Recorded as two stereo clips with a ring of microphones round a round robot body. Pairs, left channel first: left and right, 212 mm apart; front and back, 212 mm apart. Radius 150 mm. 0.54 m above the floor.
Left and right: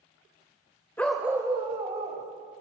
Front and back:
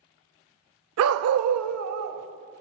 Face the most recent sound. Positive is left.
turn(degrees=-160)